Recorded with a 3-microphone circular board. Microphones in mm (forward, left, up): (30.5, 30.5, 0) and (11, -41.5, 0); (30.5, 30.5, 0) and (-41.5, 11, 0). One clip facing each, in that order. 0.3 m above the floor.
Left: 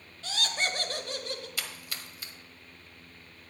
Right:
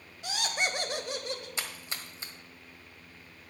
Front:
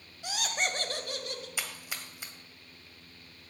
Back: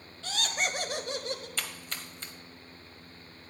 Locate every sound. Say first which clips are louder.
0.2 s laughter: even, even; 45° right, 1.1 m; by 1.5 s 175° right, 1.2 m
1.6 s a splash: right 1 dB, back 1 dB; 55° right, 1.4 m